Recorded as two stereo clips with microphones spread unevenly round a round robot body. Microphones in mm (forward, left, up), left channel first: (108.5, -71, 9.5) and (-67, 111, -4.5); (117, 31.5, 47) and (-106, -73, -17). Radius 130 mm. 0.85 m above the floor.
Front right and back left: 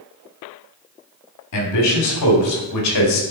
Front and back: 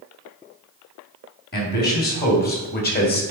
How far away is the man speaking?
About 3 m.